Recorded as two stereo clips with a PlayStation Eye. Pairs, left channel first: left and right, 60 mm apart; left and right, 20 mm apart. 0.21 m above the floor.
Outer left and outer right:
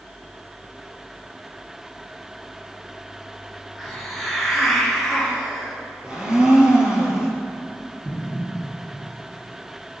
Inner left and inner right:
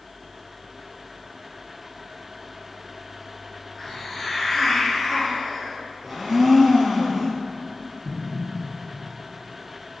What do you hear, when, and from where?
3.8 s a hiss: 5° right (ahead or behind), 3.5 m
6.0 s a blender: 15° right (ahead or behind), 2.5 m
8.1 s an explosion: 20° left (ahead or behind), 2.5 m